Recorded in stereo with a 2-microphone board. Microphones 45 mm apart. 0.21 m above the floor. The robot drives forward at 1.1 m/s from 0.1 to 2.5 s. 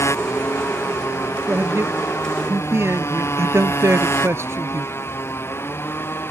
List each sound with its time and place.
0.0 s a motorcycle: 90° left; by 6.3 s 55° left (ahead or behind)
1.5 s a man speaking: 65° right (ahead or behind); by 4.9 s 70° right (ahead or behind)